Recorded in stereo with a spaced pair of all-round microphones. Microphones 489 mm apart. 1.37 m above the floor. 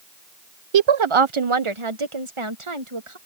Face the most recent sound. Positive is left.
turn(degrees=-80)